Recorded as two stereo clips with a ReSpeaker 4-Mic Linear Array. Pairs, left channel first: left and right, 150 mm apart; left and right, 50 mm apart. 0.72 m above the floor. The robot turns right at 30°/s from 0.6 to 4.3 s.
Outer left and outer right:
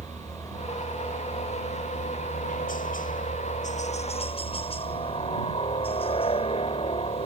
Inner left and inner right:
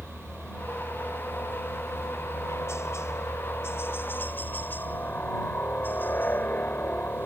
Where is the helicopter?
25° left; by 7.3 s 135° left.